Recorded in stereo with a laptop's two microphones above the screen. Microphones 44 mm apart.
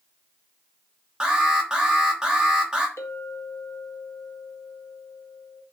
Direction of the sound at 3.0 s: 85° left.